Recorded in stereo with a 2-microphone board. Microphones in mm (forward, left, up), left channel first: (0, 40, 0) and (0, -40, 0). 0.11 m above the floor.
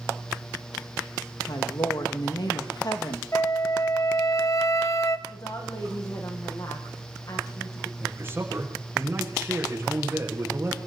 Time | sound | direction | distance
1.5 | a woman speaking | 60° left (ahead or behind) | 5 m
3.3 | a flute | 40° left (ahead or behind) | 1.2 m
5.3 | a woman speaking | 50° left (ahead or behind) | 6.5 m
8.0 | a man speaking | 25° right (ahead or behind) | 8 m